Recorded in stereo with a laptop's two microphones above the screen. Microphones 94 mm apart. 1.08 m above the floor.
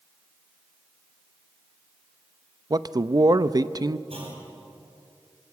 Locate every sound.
2.7 s a man speaking: 45° right (ahead or behind), 0.8 m
4.1 s a clunk: 85° right, 5.5 m